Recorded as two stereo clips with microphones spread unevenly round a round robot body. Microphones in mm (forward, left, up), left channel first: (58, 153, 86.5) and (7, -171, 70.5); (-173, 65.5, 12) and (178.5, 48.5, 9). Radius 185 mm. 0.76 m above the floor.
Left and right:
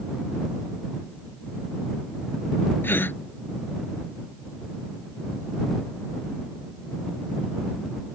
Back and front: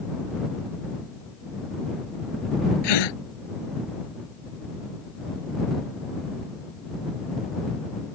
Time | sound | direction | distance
2.8 | a gasp | 165° left | ?